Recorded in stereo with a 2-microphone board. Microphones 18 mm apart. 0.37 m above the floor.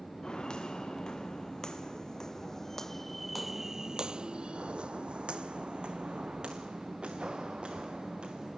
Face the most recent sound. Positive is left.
turn(degrees=-65)  # may be behind; listen again after turning